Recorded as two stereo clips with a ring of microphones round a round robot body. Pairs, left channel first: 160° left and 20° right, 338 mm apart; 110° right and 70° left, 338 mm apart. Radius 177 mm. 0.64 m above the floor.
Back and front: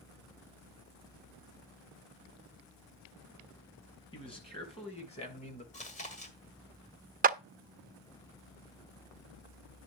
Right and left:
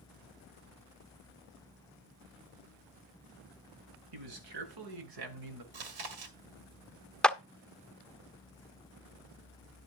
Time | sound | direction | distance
4.1 | a man speaking | 85° left | 4.5 m
5.7 | chewing | 85° left | 1.9 m
7.2 | a clap | 30° right | 0.7 m